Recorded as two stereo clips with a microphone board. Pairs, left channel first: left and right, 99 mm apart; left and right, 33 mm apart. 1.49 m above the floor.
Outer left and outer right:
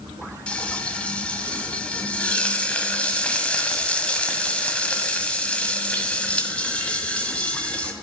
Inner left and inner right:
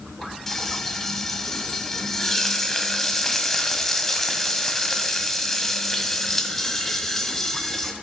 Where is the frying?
10° left (ahead or behind), 1.4 m.